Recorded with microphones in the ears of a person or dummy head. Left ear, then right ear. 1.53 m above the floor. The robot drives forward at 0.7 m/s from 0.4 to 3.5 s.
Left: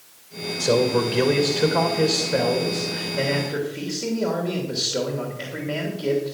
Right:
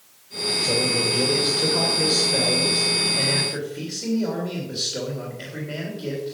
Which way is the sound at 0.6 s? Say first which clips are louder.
Left 3 dB; 50° left (ahead or behind).